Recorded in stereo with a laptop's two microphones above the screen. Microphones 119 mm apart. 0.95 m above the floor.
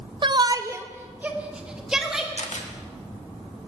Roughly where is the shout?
Right.